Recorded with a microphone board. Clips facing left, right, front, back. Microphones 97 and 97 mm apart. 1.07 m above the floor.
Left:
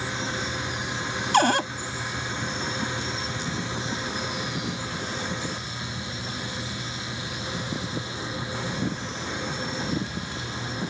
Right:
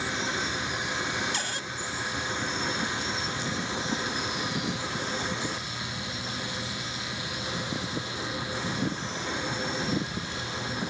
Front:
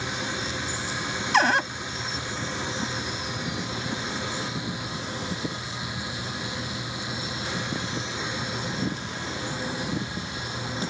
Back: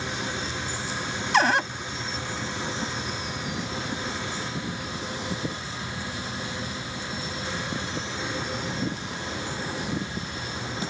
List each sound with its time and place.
1.3 s a cupboard door: 90° left